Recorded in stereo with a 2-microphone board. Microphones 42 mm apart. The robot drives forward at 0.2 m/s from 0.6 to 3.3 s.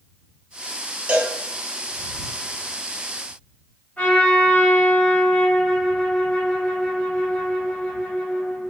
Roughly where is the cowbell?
Right.